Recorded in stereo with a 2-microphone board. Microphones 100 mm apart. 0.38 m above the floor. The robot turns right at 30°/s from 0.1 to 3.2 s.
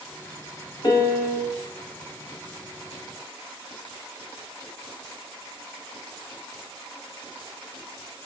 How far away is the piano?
About 0.7 m.